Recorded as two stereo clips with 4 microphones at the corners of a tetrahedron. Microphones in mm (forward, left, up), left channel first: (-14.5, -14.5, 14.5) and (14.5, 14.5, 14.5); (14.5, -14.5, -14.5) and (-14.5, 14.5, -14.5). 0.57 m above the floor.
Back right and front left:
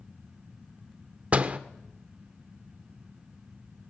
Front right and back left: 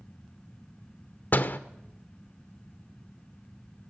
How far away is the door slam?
About 1.1 m.